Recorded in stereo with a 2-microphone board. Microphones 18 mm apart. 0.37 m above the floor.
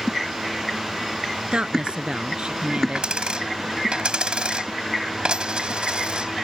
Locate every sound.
1.5 s a woman speaking: 70° right (ahead or behind)
3.0 s a dropped coin: 65° right (ahead or behind)